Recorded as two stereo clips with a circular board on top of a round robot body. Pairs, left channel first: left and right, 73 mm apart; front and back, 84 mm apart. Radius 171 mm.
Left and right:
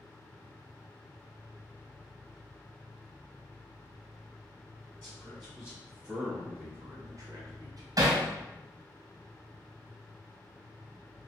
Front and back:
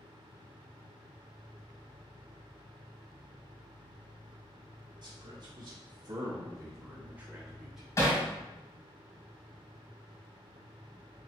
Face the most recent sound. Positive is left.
turn(degrees=-55)